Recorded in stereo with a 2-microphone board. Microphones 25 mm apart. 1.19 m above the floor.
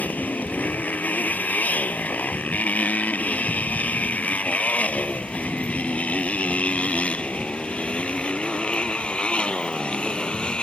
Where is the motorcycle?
75° left (ahead or behind); by 10.6 s 35° left (ahead or behind).